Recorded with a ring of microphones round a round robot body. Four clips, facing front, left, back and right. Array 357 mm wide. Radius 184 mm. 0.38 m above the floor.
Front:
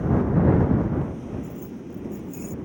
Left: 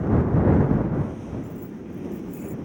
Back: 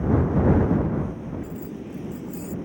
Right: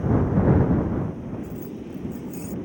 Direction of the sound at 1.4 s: 95° right.